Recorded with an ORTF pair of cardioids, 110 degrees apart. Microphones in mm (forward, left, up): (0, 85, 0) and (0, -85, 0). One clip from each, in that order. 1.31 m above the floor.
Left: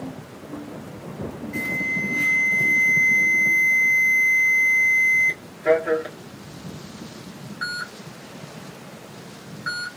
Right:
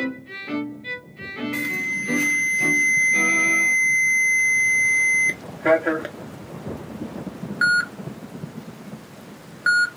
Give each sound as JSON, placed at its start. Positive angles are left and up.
{"t": 1.5, "sound": "an alarm", "azimuth_deg": -50, "distance_m": 1.1}